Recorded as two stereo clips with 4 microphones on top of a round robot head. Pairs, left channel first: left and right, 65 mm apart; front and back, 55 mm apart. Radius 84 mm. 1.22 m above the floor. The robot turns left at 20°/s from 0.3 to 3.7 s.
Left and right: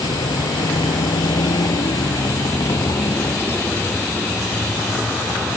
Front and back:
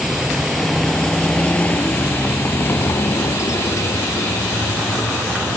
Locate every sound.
0.0 s a vehicle: 95° left; by 5.6 s 30° left